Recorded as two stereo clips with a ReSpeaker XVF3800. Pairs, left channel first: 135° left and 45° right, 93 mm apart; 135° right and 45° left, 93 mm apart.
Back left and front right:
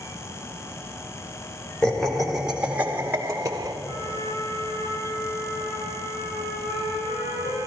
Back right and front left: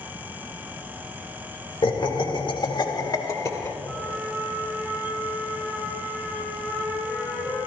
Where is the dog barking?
No dog barking in this recording.